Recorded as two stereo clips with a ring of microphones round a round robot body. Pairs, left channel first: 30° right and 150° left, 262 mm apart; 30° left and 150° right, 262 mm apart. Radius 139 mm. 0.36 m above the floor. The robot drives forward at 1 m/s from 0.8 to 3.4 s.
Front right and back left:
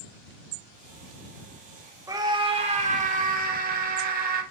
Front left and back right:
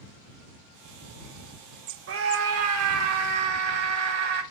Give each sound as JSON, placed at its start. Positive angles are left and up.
{"t": 2.1, "sound": "a scream", "azimuth_deg": -135, "distance_m": 2.0}